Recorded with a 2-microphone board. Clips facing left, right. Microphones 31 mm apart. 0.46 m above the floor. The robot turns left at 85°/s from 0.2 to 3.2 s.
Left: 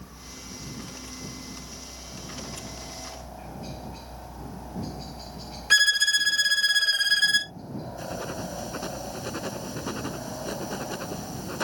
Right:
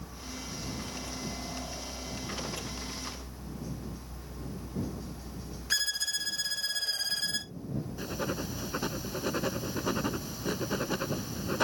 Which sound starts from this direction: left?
A violin, at 5.7 s.